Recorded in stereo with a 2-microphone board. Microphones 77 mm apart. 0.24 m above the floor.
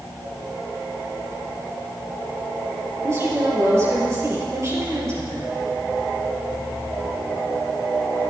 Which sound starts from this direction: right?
A woman speaking, at 3.0 s.